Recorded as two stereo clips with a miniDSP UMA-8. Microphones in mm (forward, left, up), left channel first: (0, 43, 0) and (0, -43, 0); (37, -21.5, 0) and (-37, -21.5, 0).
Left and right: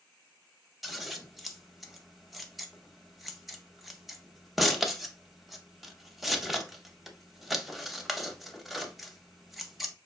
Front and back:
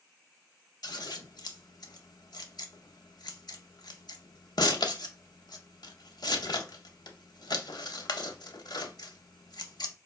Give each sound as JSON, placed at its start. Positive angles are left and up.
{"t": 0.8, "sound": "scissors", "azimuth_deg": 0, "distance_m": 0.5}